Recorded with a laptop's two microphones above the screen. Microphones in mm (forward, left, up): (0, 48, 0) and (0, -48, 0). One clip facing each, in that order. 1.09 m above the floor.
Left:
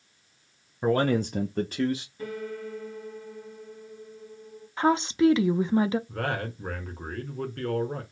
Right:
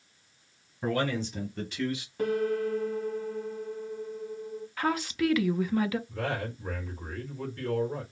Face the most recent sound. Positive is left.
turn(degrees=65)  # may be behind; listen again after turning